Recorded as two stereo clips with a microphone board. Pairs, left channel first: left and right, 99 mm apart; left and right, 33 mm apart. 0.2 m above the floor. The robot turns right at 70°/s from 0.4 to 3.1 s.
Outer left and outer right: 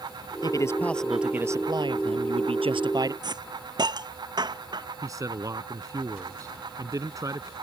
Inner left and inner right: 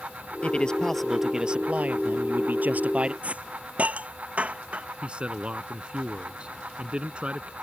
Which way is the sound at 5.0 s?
35° right (ahead or behind).